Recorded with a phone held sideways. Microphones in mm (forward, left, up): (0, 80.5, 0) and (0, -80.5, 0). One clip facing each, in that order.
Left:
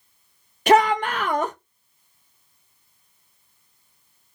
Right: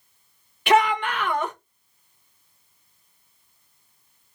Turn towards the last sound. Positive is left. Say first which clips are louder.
# left 3 dB
turn(degrees=40)  # may be behind; listen again after turning